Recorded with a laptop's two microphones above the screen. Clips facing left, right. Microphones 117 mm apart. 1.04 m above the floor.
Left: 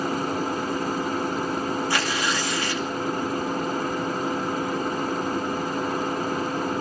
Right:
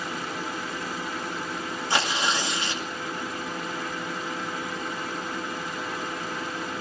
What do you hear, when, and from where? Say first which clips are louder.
0.0 s a machine running: left 7 dB; 40° left (ahead or behind), 1.2 m
1.9 s tearing paper: left 1 dB; 25° right (ahead or behind), 2.5 m